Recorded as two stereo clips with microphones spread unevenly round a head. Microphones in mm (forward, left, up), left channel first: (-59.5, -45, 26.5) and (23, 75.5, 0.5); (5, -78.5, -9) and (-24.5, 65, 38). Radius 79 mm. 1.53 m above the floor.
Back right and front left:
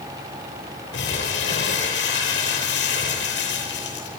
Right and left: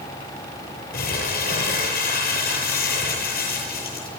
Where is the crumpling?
105° right, 8.5 m.